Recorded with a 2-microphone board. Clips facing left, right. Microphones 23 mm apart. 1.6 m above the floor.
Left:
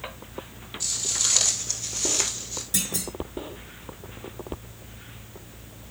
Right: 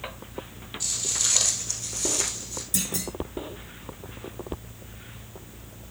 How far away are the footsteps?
About 2 m.